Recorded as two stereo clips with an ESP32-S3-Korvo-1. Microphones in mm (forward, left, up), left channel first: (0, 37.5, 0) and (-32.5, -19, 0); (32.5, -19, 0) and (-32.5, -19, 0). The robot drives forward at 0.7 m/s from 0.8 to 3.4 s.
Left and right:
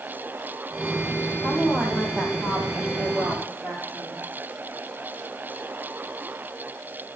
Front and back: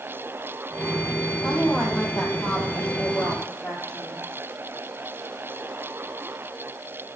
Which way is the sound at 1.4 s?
70° right.